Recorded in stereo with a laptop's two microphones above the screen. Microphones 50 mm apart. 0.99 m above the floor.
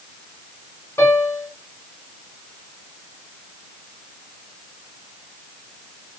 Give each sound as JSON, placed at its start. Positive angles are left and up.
{"t": 1.0, "sound": "a piano", "side_deg": 70, "distance_m": 1.6}